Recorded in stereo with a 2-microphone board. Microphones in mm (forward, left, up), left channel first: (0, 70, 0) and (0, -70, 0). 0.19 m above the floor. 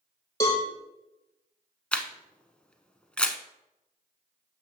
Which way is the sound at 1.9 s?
5° left (ahead or behind).